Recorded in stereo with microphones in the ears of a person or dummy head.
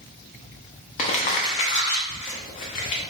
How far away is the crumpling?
About 0.5 m.